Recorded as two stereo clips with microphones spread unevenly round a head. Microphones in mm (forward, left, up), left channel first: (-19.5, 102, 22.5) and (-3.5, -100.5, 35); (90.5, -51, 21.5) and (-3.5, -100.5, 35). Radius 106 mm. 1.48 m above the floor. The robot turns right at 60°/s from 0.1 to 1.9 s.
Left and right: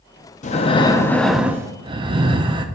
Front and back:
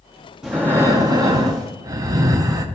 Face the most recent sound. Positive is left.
turn(degrees=-135)